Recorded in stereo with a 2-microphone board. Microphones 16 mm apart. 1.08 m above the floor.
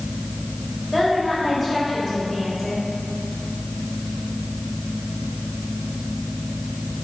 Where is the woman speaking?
Centre (ahead or behind), 4 m.